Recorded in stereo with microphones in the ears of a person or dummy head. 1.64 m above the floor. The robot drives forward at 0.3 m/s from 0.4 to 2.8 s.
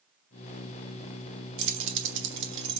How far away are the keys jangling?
About 1.2 m.